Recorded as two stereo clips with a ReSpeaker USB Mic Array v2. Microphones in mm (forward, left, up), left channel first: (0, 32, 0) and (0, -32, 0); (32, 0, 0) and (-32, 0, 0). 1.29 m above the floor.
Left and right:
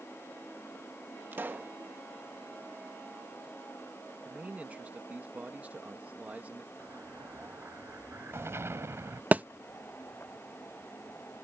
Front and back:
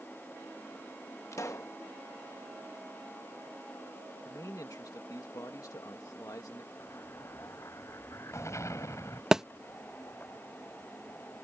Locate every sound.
1.3 s a pop: 35° right
4.2 s a man speaking: 25° right
6.8 s an explosion: 40° right
9.3 s a thud: 110° right